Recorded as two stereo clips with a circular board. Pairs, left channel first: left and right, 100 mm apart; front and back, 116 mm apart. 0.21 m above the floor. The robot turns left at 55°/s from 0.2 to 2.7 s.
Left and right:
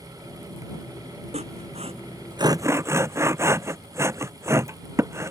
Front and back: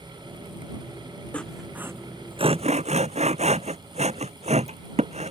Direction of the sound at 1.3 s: 80° right.